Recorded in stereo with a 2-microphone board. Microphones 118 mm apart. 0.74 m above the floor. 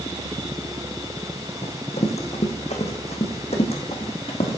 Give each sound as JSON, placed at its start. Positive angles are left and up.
{"t": 1.6, "sound": "running footsteps", "side_deg": 65, "distance_m": 1.8}